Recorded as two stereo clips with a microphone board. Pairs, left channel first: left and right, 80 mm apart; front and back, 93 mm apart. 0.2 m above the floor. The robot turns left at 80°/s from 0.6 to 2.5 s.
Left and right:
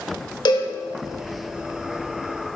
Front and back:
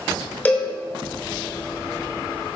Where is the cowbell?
70° left, 0.6 m; by 0.7 s 60° left, 0.6 m.